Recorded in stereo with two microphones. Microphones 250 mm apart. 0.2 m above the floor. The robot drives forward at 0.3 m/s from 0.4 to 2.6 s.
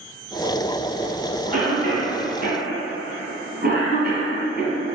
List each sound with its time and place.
1.5 s a cough: 40° right (ahead or behind), 1.6 m